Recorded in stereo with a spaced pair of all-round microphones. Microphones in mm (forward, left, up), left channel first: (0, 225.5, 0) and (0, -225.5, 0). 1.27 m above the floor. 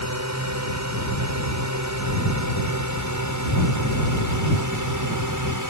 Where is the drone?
40° right (ahead or behind); by 5.7 s 45° right (ahead or behind).